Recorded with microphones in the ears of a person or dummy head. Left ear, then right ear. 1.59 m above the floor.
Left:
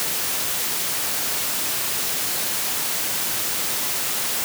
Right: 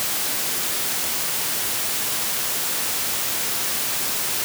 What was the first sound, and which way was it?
Only background noise.